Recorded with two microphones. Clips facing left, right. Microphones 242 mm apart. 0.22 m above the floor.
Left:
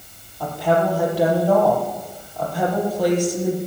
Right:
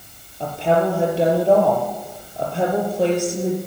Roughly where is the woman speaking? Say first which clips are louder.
Right 1 dB; right.